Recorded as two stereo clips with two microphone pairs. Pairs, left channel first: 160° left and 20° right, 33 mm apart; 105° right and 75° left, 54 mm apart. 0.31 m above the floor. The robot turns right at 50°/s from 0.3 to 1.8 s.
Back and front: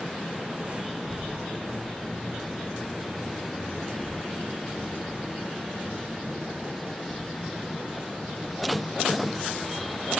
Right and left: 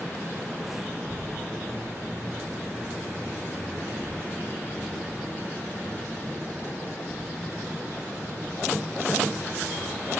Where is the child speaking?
85° right, 5 m; by 10.2 s 45° right, 5 m.